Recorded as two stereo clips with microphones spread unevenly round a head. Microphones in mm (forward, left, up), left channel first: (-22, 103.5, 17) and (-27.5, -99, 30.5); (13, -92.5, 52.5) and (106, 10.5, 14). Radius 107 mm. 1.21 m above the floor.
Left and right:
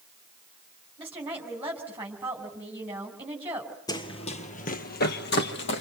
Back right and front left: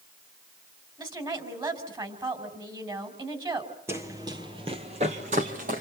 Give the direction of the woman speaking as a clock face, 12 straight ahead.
12 o'clock.